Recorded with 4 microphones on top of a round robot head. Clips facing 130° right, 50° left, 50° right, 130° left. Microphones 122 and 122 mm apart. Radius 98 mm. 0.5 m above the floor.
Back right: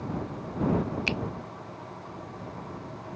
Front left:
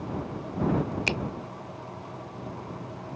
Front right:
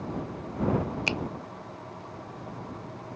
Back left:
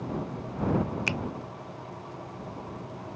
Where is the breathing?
No breathing in this recording.